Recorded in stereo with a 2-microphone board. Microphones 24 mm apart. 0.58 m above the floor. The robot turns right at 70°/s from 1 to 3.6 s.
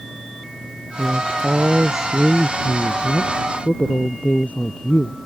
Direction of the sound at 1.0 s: 85° right.